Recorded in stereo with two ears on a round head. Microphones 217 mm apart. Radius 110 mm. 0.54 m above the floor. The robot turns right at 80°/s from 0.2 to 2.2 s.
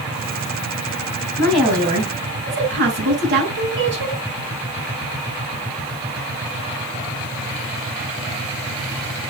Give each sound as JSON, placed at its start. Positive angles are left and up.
{"t": 1.4, "sound": "a woman speaking", "azimuth_deg": 165, "distance_m": 6.5}